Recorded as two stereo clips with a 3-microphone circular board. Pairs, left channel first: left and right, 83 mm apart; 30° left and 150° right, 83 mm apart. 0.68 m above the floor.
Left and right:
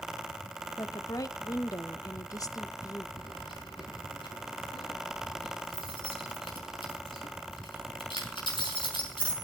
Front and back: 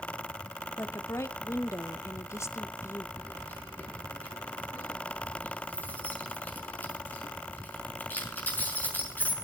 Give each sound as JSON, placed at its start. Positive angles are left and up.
{"t": 0.8, "sound": "a woman speaking", "azimuth_deg": 70, "distance_m": 1.1}
{"t": 3.2, "sound": "keys jangling", "azimuth_deg": 100, "distance_m": 6.5}